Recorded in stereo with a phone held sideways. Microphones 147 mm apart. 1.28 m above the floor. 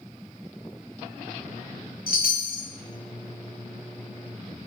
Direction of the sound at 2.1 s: 75° left (ahead or behind).